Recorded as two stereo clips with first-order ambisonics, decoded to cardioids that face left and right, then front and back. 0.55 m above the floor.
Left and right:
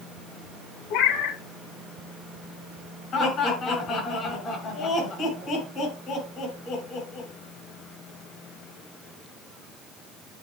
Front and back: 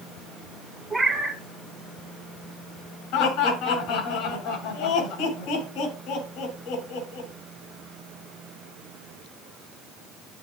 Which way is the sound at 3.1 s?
30° left.